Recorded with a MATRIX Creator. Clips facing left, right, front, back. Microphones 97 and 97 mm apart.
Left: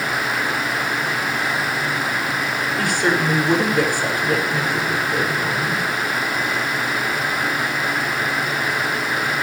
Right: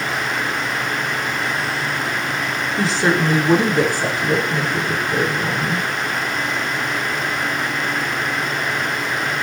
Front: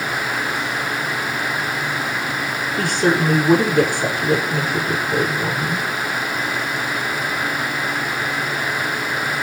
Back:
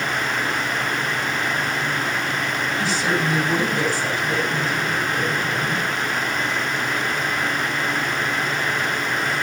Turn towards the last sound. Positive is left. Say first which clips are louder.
# right 2 dB, front 6 dB
turn(degrees=-30)